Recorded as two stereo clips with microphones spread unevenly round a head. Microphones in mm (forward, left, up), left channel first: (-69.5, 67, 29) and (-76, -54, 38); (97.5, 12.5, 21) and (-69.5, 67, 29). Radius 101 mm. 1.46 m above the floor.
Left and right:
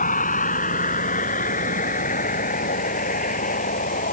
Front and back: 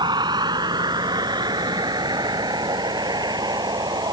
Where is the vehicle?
95° left.